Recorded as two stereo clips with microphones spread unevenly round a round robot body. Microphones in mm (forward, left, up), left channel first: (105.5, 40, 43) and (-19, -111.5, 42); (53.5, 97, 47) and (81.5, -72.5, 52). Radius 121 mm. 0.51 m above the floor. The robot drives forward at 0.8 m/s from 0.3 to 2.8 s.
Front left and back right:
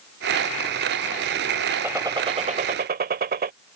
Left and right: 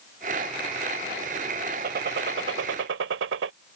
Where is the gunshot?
50° right; by 3.5 s 85° right.